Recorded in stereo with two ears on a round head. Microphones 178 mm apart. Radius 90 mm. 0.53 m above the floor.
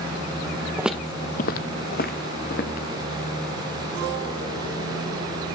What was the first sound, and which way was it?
Footsteps, 10° right (ahead or behind).